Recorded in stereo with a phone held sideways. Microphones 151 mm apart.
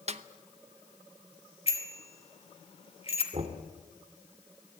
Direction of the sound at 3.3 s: 40° right (ahead or behind).